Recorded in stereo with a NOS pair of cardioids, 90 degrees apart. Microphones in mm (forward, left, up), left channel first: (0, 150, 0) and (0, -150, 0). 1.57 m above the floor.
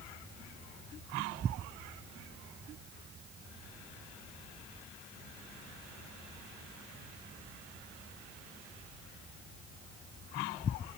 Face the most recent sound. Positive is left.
No sound to turn to.